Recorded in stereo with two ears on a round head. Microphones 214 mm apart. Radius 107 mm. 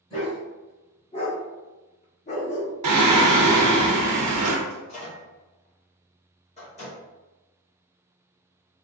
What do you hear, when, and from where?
0.1 s a dog barking: 25° left (ahead or behind), 1.8 m; by 2.7 s 30° left (ahead or behind), 0.8 m
2.8 s singing: 80° right, 0.7 m
4.7 s a microwave: 30° left (ahead or behind), 1.7 m